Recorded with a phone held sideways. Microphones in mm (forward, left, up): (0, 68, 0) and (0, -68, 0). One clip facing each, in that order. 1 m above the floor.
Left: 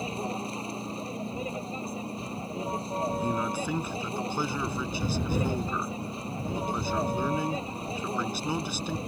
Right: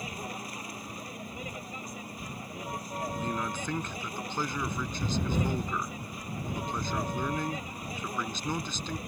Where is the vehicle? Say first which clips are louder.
Left 7 dB; 25° left (ahead or behind).